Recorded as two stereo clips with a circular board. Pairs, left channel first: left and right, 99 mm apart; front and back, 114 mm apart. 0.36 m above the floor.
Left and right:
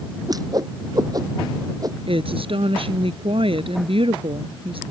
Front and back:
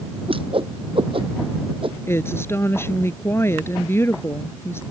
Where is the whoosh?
140° right.